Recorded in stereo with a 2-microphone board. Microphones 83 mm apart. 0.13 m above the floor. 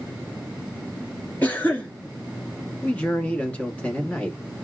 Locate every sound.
1.4 s a cough: 20° left (ahead or behind), 1.9 m
2.8 s a man speaking: 15° left (ahead or behind), 1.1 m